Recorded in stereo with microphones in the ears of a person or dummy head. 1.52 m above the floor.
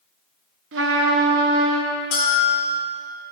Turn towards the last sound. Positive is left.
turn(degrees=50)  # may be behind; listen again after turning